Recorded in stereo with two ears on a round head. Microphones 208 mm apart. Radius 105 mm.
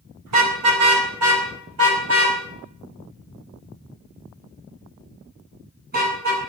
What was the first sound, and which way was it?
A car horn, 80° right.